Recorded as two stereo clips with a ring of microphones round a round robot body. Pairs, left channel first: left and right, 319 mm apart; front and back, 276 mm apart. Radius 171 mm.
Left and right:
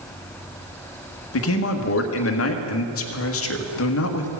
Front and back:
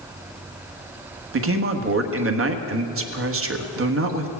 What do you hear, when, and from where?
1.3 s a man speaking: 140° left, 1.4 m